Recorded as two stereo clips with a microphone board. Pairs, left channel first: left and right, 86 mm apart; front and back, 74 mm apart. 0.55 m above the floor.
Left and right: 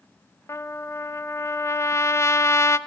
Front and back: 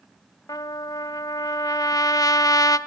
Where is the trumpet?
35° left, 0.9 m.